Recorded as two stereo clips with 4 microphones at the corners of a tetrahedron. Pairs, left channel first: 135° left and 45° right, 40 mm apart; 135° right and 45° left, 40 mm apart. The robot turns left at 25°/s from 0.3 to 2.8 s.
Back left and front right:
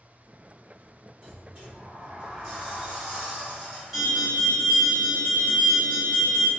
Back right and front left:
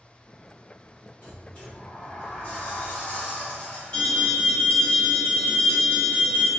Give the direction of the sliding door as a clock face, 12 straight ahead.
3 o'clock.